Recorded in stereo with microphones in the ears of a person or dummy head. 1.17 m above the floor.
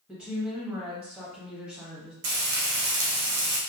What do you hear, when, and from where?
0.1 s a woman speaking: 5° right (ahead or behind), 1.2 m
2.2 s frying: 55° right (ahead or behind), 0.6 m